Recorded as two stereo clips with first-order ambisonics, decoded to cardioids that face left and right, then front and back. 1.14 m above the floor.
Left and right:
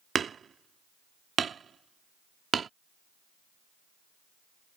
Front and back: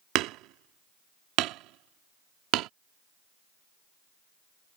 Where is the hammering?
155° right.